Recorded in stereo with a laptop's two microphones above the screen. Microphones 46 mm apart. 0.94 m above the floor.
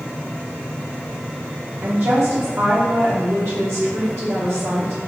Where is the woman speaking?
70° right (ahead or behind), 2.5 m.